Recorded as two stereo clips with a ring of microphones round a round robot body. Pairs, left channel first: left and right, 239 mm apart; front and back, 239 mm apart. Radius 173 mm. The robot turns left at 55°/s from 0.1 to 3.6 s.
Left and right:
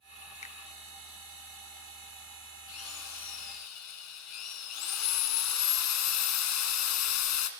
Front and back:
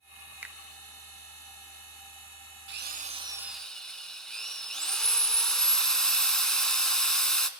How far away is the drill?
About 2.0 m.